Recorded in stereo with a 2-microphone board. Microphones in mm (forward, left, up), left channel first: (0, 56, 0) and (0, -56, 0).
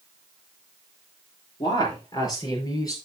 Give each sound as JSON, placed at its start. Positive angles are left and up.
{"t": 1.6, "sound": "a woman speaking", "side_deg": 45, "distance_m": 5.5}